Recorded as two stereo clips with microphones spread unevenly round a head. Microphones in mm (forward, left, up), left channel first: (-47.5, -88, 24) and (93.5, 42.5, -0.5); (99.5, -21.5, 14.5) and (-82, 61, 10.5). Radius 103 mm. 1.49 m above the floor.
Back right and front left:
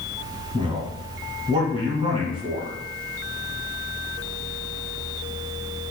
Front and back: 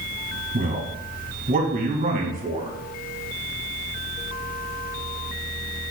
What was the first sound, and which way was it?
A man speaking, 105° left.